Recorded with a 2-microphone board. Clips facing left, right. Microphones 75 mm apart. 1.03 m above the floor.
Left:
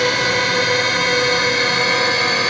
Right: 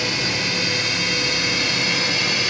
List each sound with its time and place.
0.0 s a drone: 60° left (ahead or behind); by 2.5 s 50° left (ahead or behind)